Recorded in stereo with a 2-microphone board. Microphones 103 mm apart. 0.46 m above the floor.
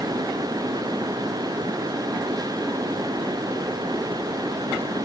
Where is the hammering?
No hammering in this recording.